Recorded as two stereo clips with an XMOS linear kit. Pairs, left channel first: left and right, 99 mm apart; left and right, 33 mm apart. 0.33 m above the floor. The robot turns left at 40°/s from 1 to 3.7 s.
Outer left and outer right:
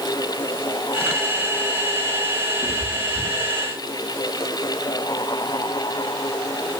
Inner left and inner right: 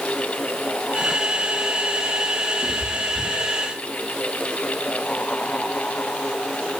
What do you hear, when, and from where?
2.6 s a cat meowing: 60° left (ahead or behind), 9.5 m; by 3.7 s 75° left (ahead or behind), 9.5 m